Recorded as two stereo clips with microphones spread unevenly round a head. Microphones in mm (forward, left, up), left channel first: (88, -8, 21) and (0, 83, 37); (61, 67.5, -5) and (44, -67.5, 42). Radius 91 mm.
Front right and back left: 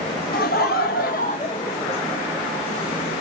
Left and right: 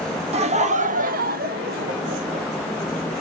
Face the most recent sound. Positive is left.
turn(degrees=-150)